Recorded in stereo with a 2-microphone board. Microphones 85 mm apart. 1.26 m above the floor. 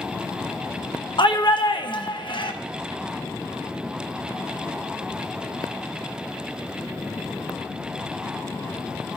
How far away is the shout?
About 1.1 m.